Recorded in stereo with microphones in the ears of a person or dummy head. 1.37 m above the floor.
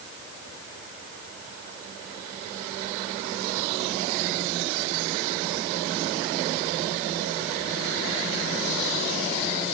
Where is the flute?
I don't hear a flute.